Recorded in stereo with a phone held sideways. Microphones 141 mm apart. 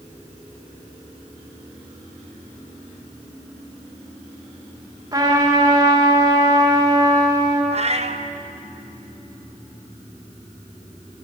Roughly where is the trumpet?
Right.